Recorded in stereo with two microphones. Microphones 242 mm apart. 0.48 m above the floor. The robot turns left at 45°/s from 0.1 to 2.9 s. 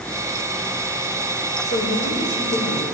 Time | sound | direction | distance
1.6 | a woman speaking | 110° left | 2 m